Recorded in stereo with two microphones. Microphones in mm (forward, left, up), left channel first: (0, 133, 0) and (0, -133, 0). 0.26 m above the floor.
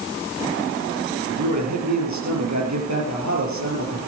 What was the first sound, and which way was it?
A man speaking, 80° right.